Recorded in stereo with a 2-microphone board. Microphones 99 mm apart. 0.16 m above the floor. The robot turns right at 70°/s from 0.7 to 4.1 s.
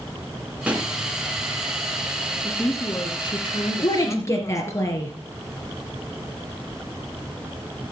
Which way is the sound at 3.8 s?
45° left (ahead or behind).